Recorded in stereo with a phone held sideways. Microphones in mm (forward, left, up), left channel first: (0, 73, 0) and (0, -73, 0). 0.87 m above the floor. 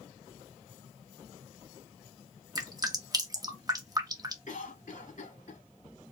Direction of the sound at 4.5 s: 65° left (ahead or behind).